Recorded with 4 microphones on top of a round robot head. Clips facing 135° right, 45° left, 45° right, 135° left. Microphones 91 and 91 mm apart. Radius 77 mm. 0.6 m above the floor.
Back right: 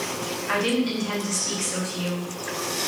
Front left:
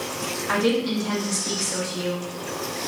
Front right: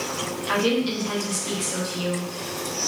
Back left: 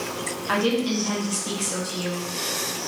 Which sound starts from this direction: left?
A woman speaking, at 0.5 s.